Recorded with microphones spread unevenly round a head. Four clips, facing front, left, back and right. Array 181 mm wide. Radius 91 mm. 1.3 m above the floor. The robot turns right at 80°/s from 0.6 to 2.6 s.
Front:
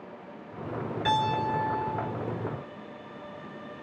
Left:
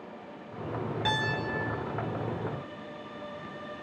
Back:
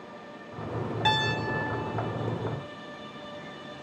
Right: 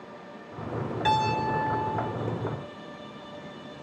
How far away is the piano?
About 2 m.